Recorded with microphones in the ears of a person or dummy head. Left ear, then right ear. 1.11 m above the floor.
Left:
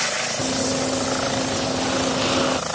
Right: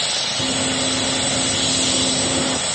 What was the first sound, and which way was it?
Running footsteps, 70° left (ahead or behind).